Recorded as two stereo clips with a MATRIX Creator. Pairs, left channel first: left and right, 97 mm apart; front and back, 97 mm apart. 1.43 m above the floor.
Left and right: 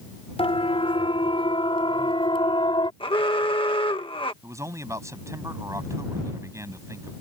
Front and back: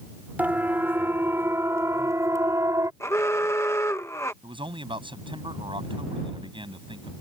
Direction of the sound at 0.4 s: 110° left.